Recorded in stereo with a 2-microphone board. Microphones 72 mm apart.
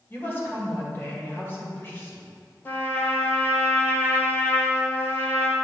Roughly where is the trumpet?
Left.